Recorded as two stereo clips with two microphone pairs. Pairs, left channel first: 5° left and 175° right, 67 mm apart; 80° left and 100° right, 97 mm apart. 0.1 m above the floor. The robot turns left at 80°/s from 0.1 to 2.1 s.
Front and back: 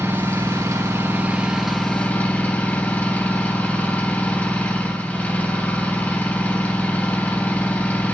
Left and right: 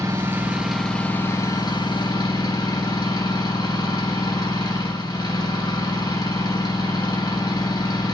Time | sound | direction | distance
0.0 | an engine running | 140° right | 1.8 m